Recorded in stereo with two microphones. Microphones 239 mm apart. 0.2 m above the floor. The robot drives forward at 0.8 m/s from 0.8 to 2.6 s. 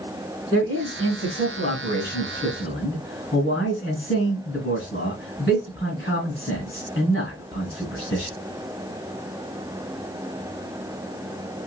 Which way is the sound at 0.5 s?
35° left (ahead or behind).